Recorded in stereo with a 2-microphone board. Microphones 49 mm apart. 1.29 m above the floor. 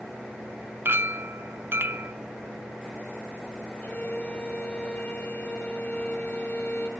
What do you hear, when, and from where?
0.8 s a clink: 55° right (ahead or behind), 0.6 m
3.8 s a violin: 30° left (ahead or behind), 2.5 m